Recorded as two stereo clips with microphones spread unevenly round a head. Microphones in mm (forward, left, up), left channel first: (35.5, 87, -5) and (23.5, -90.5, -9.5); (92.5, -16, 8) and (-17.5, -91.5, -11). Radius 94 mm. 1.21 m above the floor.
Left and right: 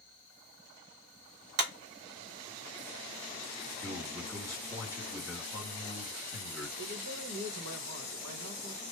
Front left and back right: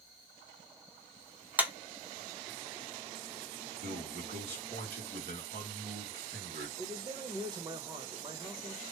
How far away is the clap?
About 0.9 m.